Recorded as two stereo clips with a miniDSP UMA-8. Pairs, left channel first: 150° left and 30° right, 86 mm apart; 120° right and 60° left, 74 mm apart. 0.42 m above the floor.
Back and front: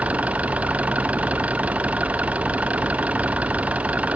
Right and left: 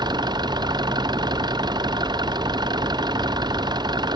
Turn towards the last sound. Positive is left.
turn(degrees=45)